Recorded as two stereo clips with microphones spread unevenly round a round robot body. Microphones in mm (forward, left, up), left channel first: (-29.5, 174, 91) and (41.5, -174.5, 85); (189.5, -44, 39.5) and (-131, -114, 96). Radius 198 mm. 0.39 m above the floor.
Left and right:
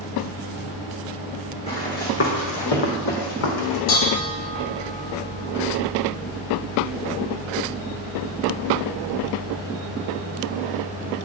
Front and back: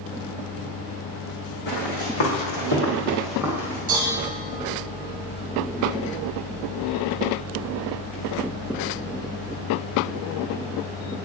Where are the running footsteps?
25° left, 1.9 m; by 3.8 s 125° left, 1.7 m.